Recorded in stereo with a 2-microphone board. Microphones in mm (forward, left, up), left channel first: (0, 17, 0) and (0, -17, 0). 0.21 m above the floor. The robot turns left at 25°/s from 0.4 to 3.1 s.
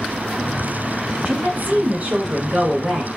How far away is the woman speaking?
About 1.8 m.